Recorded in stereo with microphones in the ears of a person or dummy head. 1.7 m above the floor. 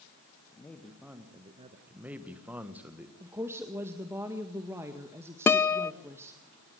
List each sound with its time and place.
0.5 s a man speaking: 15° left (ahead or behind), 1.9 m; by 1.8 s 35° right (ahead or behind), 1.5 m
1.9 s a man speaking: 10° right (ahead or behind), 1.7 m
3.2 s a woman speaking: 15° right (ahead or behind), 1.7 m
5.5 s a guitar: 10° left (ahead or behind), 0.6 m